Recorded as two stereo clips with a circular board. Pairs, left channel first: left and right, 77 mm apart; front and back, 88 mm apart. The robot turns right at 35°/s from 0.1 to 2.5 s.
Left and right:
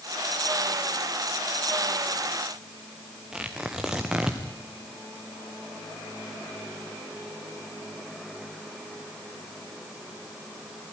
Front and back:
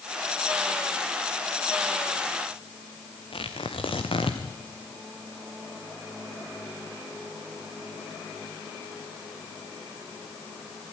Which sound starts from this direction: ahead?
Tearing paper, at 3.3 s.